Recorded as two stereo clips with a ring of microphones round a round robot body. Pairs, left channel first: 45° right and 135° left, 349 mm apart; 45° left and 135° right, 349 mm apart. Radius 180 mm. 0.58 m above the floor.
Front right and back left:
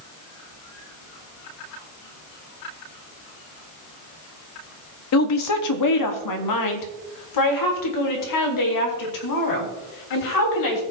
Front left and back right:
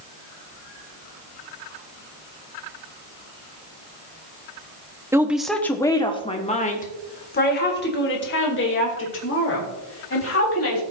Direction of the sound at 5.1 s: 55° right.